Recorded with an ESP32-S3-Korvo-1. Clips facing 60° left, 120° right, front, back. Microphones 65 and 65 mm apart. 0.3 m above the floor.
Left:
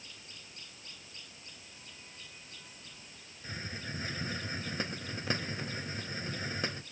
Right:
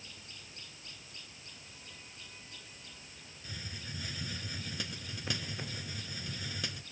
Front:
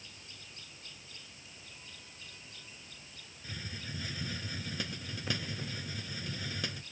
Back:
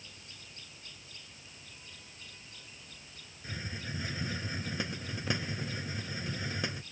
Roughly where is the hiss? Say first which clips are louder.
Left 5 dB, back 3 dB; behind left.